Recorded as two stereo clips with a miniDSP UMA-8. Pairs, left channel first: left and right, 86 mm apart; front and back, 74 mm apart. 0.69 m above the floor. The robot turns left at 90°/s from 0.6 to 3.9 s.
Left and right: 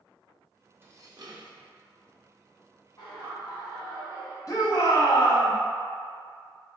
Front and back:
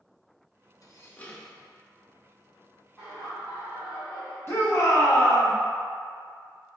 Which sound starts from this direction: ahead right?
Dishes clattering, at 0.8 s.